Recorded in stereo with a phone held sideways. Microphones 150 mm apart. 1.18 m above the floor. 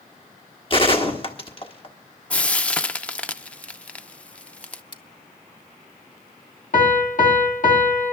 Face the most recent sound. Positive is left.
turn(degrees=60)  # may be behind; listen again after turning